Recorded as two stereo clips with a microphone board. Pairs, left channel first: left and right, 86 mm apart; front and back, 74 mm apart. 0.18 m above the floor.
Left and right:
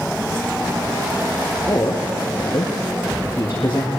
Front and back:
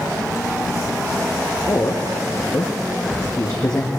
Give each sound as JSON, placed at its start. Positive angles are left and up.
{"t": 1.7, "sound": "a man speaking", "azimuth_deg": 40, "distance_m": 3.0}